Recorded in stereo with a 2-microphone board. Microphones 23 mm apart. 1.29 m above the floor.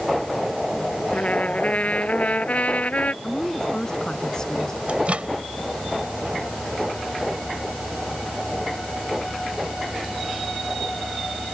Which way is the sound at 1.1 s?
85° left.